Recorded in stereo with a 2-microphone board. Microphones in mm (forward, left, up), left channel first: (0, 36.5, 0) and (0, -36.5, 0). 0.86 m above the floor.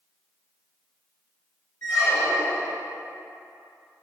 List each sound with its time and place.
1.8 s a squeak: 50° left (ahead or behind), 0.8 m